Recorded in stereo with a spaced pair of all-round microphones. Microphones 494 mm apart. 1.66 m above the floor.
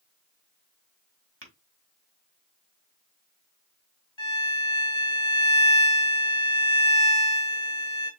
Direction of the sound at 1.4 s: 25° right (ahead or behind).